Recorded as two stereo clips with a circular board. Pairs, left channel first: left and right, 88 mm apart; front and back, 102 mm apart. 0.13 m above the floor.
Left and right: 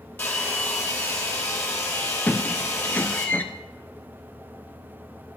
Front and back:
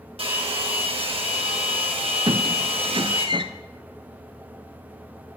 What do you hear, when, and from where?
0.2 s a hair dryer: 160° left, 2.5 m
2.3 s a squeak: 155° left, 0.9 m